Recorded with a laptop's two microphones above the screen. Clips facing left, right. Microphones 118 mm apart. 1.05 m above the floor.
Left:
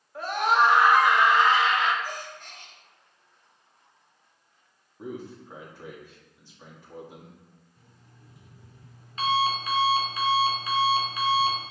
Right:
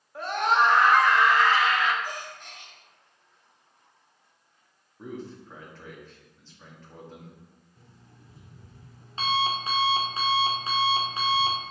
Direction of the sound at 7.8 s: 30° right (ahead or behind).